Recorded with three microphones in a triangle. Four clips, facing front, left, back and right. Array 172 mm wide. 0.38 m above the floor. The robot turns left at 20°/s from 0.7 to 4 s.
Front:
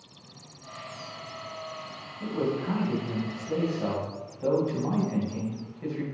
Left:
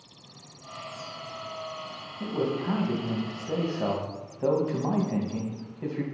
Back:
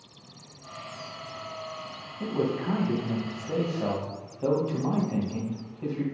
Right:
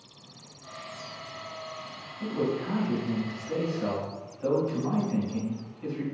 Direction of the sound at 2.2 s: 145° left.